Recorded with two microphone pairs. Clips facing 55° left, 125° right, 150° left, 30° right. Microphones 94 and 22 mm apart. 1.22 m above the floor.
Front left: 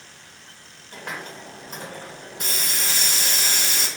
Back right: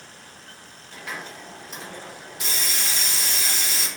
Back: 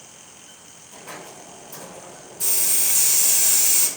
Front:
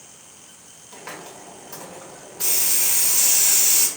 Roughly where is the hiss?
Ahead.